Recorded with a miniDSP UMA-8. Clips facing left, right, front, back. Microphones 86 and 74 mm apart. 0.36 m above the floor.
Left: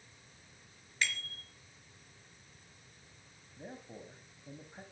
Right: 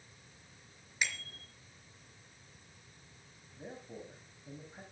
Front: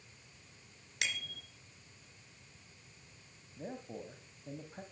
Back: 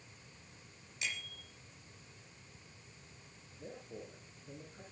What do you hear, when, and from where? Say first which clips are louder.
1.0 s a bicycle bell: left 1 dB, front 3 dB; 15° right, 4 m
3.6 s a man speaking: right 1 dB, front 4 dB; 10° left, 3 m